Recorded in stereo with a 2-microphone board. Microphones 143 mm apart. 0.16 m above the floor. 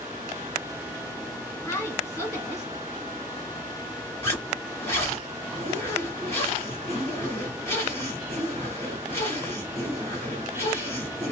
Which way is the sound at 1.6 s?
20° left (ahead or behind).